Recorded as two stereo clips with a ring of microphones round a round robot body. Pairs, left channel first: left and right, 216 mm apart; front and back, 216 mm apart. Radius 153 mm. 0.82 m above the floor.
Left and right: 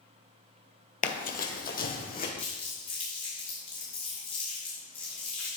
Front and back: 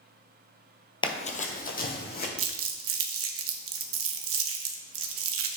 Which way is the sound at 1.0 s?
60° left.